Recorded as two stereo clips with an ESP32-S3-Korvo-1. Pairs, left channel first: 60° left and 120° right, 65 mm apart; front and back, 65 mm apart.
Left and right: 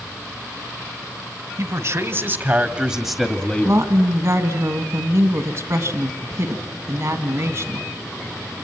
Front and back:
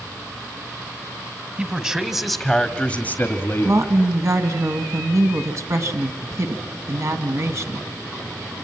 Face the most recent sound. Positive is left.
turn(degrees=-155)